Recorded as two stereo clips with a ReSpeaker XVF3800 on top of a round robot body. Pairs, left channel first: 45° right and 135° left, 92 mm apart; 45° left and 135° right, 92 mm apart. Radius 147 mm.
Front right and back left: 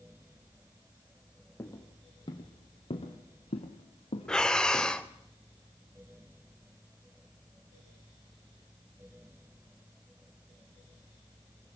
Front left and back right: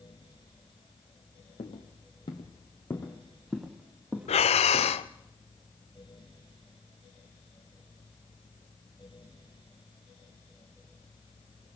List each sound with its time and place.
1.6 s footsteps: 20° left, 1.8 m; by 5.0 s 75° right, 2 m
4.3 s breathing: 35° left, 0.5 m